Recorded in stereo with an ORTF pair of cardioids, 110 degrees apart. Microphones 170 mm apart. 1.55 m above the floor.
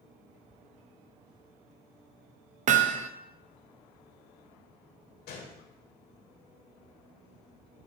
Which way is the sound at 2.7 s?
50° right.